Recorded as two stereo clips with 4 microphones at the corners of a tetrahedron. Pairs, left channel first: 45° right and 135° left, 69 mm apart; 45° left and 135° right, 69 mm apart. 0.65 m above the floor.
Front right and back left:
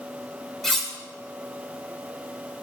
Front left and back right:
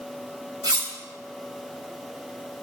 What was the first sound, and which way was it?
Cutlery clinking, 130° right.